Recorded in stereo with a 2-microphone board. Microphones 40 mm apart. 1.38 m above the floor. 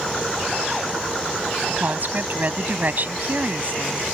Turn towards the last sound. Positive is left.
turn(degrees=-45)  # may be behind; listen again after turning